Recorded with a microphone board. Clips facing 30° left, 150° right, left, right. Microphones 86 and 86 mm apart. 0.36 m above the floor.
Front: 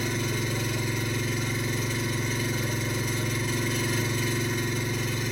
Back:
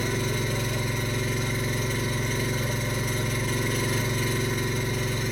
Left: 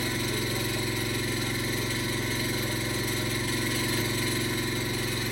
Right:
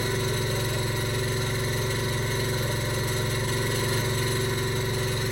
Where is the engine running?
65° right, 1.1 m.